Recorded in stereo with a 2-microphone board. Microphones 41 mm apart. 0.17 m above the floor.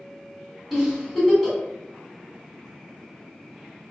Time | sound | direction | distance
0.7 | a giggle | centre (ahead or behind) | 1.7 m